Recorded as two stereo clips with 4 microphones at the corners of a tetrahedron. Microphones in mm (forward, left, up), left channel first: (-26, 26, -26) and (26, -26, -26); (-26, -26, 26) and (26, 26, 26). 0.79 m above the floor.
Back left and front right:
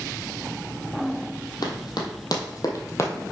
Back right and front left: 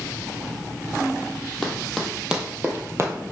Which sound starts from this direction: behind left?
Running footsteps, at 1.6 s.